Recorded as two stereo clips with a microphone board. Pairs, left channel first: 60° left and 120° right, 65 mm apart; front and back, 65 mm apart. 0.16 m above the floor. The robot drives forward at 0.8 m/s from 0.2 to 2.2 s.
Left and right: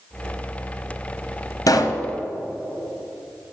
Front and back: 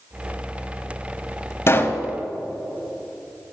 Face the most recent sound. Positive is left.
turn(degrees=85)